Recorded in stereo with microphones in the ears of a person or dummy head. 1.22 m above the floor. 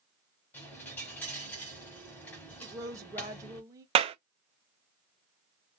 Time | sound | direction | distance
0.5 | a dropped coin | 10° left (ahead or behind) | 1.2 m
2.6 | a woman speaking | 20° right (ahead or behind) | 1.4 m
4.0 | a clap | 40° right (ahead or behind) | 0.5 m